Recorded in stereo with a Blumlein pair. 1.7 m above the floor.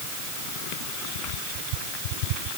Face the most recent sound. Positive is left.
No sound to turn to.